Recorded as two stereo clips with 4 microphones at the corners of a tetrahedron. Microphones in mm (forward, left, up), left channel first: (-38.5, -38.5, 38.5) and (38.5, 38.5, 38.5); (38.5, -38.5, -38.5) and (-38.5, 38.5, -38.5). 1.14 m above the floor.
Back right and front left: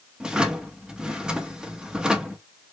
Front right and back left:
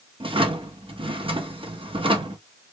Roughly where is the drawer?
Behind left.